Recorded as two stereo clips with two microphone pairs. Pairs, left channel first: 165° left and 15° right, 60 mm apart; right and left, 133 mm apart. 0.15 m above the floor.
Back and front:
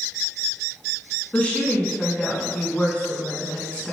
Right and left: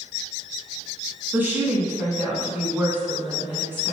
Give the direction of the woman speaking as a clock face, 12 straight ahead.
7 o'clock.